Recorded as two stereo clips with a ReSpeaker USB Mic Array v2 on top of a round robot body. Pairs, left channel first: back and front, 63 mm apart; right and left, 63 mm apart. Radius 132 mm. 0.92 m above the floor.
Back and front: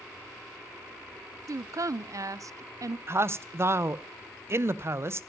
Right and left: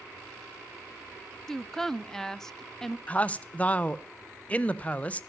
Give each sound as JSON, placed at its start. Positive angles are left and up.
{"t": 1.5, "sound": "a woman speaking", "azimuth_deg": -10, "distance_m": 0.5}
{"t": 3.1, "sound": "a man speaking", "azimuth_deg": -30, "distance_m": 0.6}